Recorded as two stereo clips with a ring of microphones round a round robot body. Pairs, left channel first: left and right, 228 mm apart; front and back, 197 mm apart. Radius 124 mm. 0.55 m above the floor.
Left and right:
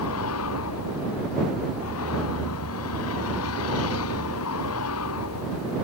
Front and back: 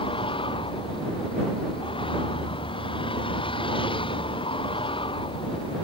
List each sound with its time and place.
0.0 s a vehicle: 65° left